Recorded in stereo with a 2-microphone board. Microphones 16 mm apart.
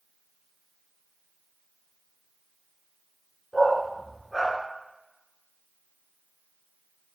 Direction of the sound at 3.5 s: 5° right (ahead or behind).